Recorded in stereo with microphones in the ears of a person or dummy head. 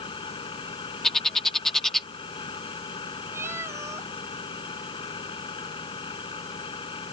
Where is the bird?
Centre (ahead or behind).